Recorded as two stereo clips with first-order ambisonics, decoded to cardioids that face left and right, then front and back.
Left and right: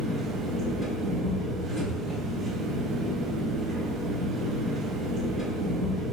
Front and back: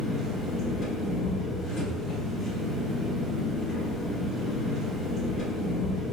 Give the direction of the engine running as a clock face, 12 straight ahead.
1 o'clock.